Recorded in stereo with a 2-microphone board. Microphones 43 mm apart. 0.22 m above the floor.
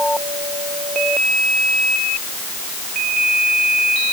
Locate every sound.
Only background noise.